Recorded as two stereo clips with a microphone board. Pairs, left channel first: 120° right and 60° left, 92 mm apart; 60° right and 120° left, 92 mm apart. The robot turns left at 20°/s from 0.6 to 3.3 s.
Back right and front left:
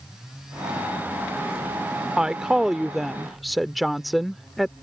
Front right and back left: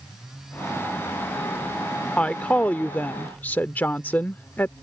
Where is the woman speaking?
10° right; by 4.7 s 30° right.